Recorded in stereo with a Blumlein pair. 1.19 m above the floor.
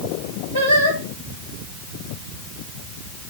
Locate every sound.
0.5 s singing: 65° right, 4 m